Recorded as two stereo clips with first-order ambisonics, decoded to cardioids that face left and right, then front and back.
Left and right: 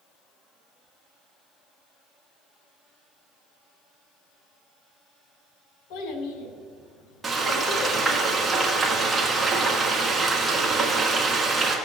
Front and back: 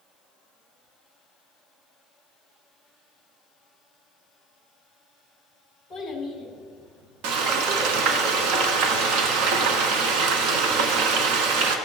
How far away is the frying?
About 1.3 m.